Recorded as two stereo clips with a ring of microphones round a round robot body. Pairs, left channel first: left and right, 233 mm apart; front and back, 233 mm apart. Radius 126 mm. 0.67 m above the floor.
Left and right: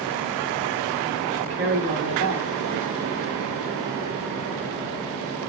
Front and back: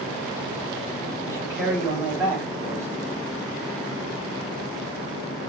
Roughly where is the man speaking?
Right.